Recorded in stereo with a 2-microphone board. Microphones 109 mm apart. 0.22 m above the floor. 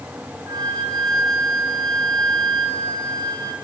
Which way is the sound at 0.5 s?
40° right (ahead or behind).